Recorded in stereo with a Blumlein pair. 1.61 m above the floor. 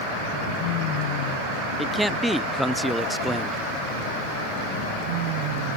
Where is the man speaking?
5° right.